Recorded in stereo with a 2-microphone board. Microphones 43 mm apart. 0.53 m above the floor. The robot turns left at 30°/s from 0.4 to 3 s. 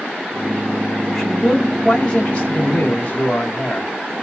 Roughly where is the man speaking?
Behind.